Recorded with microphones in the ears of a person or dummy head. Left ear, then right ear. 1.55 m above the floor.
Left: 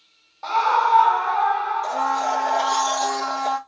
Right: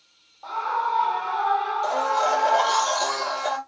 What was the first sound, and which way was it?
A scream, 60° left (ahead or behind).